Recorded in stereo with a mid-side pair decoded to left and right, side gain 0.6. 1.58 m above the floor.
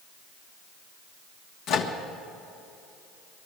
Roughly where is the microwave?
Left.